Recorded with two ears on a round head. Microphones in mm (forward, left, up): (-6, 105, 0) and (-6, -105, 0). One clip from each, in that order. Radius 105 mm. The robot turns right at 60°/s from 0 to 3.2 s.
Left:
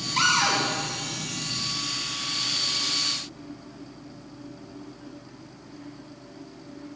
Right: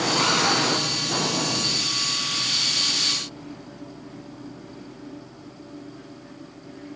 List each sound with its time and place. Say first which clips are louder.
0.2 s a cupboard door: left 2 dB; 50° left (ahead or behind), 4 m; by 0.6 s 25° left (ahead or behind), 4 m